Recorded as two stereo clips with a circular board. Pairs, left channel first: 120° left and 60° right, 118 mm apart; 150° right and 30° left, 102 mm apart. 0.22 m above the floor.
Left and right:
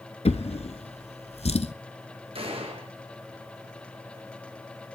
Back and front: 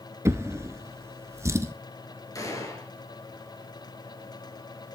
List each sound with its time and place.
0.2 s a drawer: 90° left, 0.8 m
2.4 s a gunshot: 95° right, 3 m